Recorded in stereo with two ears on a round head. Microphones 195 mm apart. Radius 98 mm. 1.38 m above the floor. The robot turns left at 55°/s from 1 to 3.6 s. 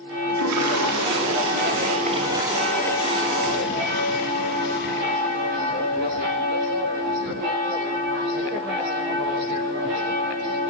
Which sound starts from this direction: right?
A toilet flushing, at 0.3 s.